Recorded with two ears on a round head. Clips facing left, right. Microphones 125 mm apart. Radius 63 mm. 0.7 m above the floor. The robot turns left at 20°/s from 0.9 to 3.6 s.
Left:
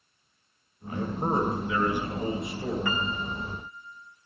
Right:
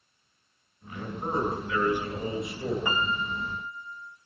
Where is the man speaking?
30° left, 8.5 m; by 2.8 s 5° right, 8.5 m.